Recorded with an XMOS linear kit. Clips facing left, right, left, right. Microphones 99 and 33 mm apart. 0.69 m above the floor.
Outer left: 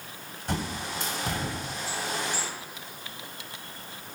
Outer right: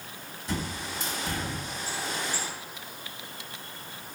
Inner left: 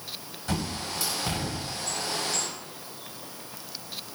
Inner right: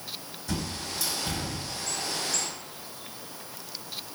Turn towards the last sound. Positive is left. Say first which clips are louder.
# outer left 2 dB, inner left 2 dB
turn(degrees=55)  # may be behind; listen again after turning